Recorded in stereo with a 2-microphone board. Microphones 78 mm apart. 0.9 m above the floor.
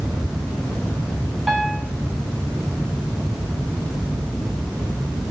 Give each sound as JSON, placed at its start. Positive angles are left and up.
{"t": 1.5, "sound": "a piano", "side_deg": -5, "distance_m": 2.0}